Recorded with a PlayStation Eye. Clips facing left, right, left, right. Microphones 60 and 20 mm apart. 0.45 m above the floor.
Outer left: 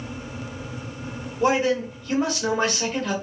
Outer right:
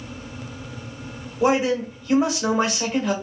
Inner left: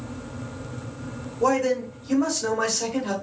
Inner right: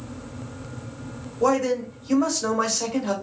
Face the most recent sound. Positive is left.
turn(degrees=-10)  # may be behind; listen again after turning